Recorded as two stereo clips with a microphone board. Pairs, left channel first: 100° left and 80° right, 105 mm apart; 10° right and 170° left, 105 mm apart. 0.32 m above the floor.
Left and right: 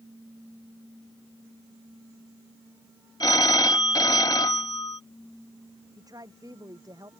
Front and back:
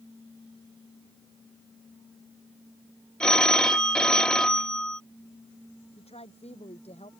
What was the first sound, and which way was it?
A phone ringing, 70° left.